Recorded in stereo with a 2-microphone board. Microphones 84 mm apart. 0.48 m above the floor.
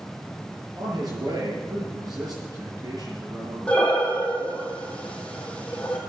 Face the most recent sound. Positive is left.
turn(degrees=15)  # may be behind; listen again after turning